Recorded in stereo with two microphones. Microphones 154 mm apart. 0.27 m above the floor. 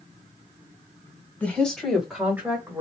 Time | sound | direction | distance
1.4 | a woman speaking | 10° left (ahead or behind) | 1.8 m